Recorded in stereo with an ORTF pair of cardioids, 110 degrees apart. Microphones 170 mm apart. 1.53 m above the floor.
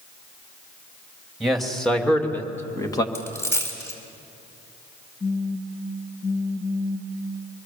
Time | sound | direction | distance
1.4 | a man speaking | straight ahead | 3 m
3.1 | a dropped coin | 15° left | 4.5 m
5.2 | a phone buzzing | 35° left | 2 m